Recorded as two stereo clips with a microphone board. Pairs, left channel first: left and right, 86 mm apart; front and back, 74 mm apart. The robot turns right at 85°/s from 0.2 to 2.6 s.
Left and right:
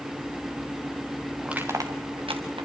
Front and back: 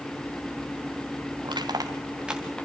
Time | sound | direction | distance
1.4 | crushing | 170° right | 3 m